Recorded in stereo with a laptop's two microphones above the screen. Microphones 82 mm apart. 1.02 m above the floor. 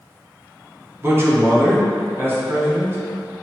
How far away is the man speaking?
About 1.0 m.